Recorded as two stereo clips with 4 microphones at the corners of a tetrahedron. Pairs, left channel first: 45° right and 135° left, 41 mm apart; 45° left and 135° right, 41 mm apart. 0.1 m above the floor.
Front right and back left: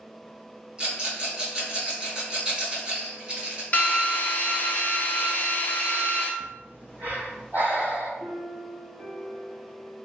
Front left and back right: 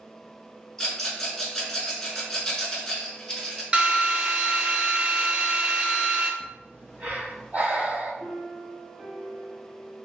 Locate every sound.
0.8 s a rattle: 110° left, 1.2 m
3.7 s a drill: 80° right, 0.7 m
6.4 s breathing: straight behind, 0.7 m
8.2 s a piano: 155° left, 1.8 m